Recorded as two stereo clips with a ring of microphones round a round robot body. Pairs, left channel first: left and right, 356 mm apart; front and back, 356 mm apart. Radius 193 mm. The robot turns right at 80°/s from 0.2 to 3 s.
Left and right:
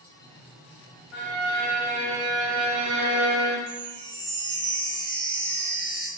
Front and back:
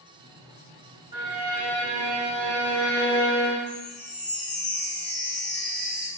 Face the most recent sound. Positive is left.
turn(degrees=-65)